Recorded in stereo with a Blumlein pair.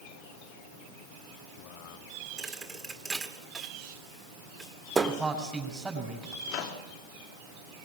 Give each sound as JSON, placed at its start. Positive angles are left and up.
{"t": 2.4, "sound": "a thud", "azimuth_deg": -10, "distance_m": 1.7}
{"t": 5.1, "sound": "a man speaking", "azimuth_deg": -10, "distance_m": 7.0}
{"t": 6.5, "sound": "a microwave", "azimuth_deg": 40, "distance_m": 2.5}